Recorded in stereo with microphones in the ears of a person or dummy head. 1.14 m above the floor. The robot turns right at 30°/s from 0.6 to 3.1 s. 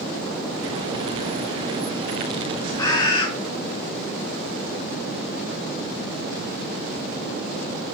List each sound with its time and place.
2.8 s a bird: 25° left (ahead or behind), 1.3 m; by 3.3 s 30° left (ahead or behind), 1.3 m